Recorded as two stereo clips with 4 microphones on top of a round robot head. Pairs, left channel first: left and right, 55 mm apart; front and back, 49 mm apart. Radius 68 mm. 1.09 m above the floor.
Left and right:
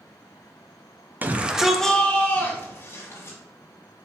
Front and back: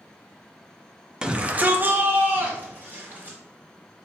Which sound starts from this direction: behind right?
A shout, at 1.2 s.